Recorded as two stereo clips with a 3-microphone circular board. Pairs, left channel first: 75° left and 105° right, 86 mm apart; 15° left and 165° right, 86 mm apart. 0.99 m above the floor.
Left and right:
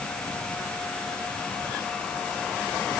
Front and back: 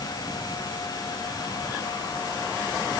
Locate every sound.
Only background noise.